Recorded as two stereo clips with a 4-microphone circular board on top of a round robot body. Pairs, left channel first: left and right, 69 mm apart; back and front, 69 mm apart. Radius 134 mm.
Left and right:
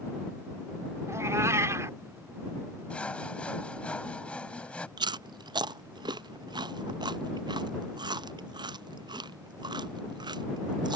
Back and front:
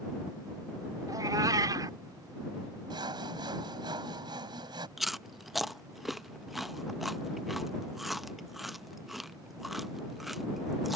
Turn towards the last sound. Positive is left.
turn(degrees=-90)